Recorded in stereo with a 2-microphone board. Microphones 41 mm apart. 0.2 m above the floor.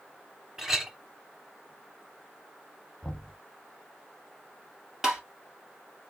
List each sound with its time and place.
0.6 s a clink: 10° right (ahead or behind), 0.7 m
3.0 s knocking: 15° left (ahead or behind), 1.0 m
5.0 s tapping: 15° right (ahead or behind), 1.8 m